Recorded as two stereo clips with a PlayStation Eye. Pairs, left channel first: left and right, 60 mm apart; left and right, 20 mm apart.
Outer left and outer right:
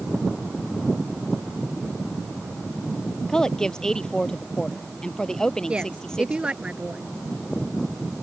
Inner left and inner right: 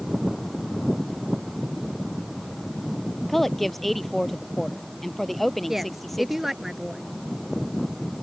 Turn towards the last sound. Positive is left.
turn(degrees=-20)  # may be behind; listen again after turning